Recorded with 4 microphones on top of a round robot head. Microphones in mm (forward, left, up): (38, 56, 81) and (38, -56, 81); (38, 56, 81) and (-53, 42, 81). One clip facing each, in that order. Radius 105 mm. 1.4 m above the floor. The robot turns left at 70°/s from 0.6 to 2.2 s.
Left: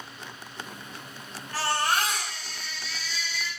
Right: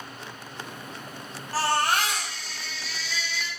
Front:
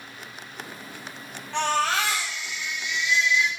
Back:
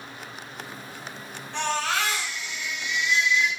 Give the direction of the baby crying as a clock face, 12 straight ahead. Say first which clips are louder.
Right 2 dB, front 3 dB; 1 o'clock.